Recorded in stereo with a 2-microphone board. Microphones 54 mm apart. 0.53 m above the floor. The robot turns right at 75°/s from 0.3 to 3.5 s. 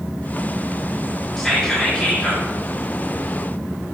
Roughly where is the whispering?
Centre.